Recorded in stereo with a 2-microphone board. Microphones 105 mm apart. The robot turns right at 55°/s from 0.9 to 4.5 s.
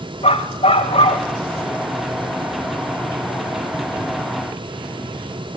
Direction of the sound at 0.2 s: 85° left.